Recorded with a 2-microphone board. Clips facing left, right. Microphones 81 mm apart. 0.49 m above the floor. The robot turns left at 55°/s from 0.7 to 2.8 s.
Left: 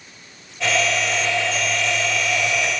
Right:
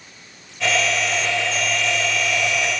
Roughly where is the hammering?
No hammering in this recording.